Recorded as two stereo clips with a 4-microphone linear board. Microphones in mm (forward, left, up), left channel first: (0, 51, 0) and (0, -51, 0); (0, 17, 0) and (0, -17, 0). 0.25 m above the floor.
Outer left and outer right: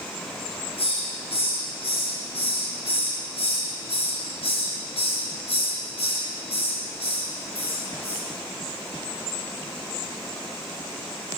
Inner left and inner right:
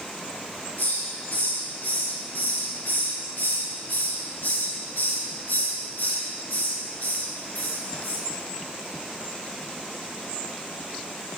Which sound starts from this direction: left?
A hiss, at 0.8 s.